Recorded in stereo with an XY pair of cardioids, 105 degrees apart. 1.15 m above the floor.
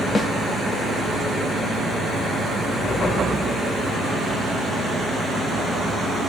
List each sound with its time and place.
0.1 s a snare drum: 30° left, 1.9 m